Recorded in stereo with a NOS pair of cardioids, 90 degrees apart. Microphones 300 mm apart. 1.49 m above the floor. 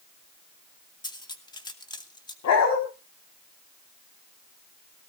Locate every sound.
1.0 s cutlery clinking: 15° left, 1.8 m
2.4 s a dog barking: 65° left, 4.5 m